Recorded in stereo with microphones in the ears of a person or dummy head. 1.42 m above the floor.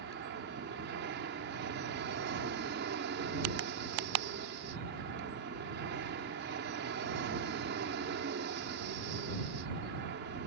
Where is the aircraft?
55° right (ahead or behind).